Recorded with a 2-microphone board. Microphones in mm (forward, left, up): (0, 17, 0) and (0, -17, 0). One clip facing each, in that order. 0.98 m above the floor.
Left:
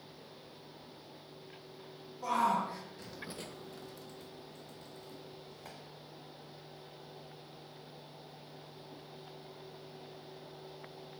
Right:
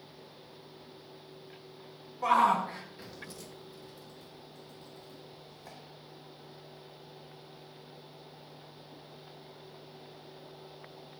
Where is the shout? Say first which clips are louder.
Right 6 dB; 60° right (ahead or behind), 1.4 m; by 5.8 s 75° left (ahead or behind), 3.5 m.